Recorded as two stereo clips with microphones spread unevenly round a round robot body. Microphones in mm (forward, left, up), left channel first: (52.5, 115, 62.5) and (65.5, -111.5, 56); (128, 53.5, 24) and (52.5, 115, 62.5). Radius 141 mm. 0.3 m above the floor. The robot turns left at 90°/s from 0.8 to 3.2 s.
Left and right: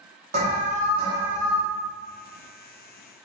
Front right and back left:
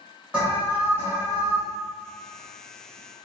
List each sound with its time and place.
0.3 s an alarm: 115° right, 0.7 m; by 1.6 s 170° left, 0.7 m